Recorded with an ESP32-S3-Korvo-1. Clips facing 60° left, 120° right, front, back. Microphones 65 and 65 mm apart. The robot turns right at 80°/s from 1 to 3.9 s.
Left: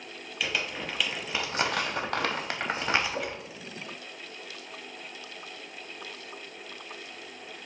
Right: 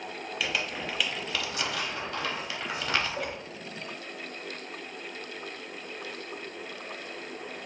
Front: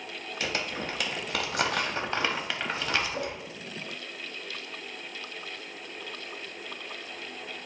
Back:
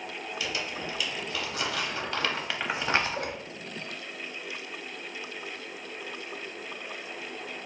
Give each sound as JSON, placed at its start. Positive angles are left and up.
{"t": 0.4, "sound": "crumpling", "azimuth_deg": -30, "distance_m": 0.7}
{"t": 3.1, "sound": "a whoosh", "azimuth_deg": 25, "distance_m": 1.4}